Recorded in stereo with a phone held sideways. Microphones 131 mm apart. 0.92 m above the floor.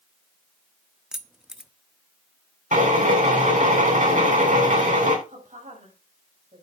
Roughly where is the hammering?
No hammering in this recording.